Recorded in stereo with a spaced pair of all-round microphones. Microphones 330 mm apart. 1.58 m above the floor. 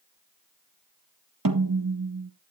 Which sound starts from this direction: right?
A snare drum, at 1.4 s.